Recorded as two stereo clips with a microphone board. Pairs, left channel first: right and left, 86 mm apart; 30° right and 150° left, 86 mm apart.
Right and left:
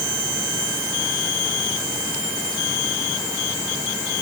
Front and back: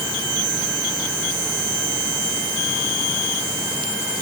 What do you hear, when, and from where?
Only background noise.